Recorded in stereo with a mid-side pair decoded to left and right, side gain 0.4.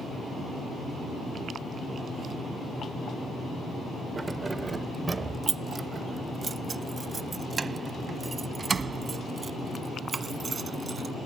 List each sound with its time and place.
4.2 s keys jangling: 30° right; by 11.1 s 40° right